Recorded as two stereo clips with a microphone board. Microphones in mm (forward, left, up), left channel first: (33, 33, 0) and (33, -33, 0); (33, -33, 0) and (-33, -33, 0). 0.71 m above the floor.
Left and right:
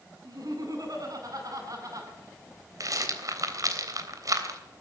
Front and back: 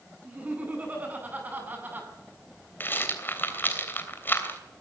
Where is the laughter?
115° right, 9 m; by 2.1 s 120° right, 6.5 m.